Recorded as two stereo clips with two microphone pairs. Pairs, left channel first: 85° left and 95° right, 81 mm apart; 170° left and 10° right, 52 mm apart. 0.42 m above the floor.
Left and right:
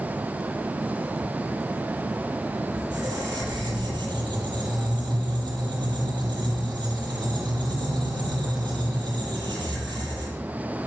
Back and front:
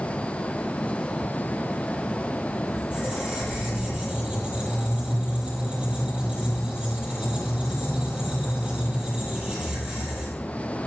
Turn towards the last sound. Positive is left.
turn(degrees=-75)